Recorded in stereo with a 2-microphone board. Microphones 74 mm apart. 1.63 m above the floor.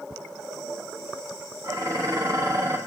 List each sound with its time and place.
1.6 s dishes clattering: 55° right (ahead or behind), 1.4 m